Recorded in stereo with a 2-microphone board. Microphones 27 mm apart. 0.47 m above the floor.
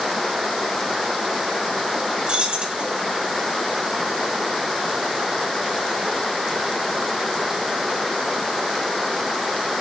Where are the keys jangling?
45° right (ahead or behind), 1.4 m.